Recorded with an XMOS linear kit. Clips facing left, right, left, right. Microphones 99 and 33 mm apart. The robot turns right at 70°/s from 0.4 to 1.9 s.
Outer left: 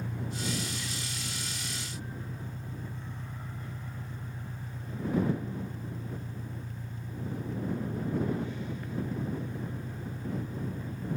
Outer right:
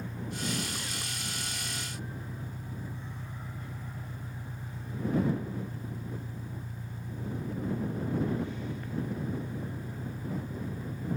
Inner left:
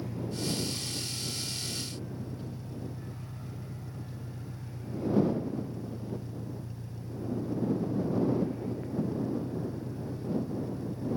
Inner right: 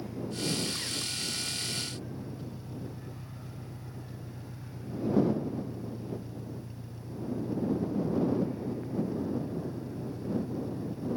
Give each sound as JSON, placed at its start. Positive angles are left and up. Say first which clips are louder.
{"t": 0.0, "sound": "an engine running", "louder": "outer left 1 dB, even", "azimuth_deg": 85}